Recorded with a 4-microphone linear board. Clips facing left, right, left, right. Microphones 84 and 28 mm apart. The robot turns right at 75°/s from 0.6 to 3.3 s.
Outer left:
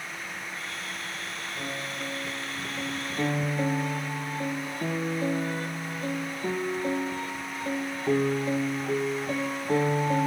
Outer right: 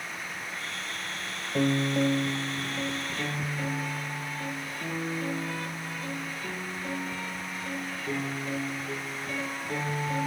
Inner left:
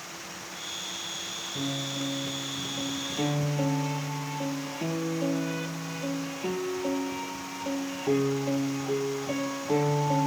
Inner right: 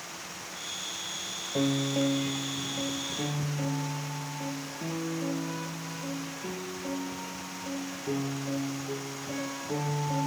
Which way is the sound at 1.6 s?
95° right.